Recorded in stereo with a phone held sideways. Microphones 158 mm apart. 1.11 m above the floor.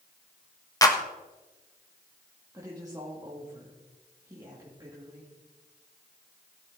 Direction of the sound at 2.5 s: 20° right (ahead or behind).